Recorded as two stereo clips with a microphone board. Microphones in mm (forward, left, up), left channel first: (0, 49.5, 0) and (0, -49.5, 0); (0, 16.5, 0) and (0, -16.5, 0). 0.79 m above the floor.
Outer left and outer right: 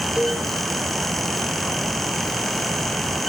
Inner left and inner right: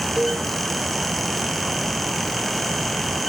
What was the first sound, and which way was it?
A cowbell, 5° right (ahead or behind).